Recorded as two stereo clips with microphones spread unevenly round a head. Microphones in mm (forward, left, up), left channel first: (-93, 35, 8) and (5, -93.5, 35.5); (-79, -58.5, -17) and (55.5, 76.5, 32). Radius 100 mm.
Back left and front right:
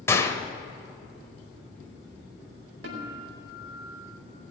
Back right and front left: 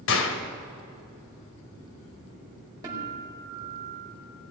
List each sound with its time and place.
0.1 s a gunshot: 155° right, 1.9 m
2.8 s a guitar: 30° right, 4.5 m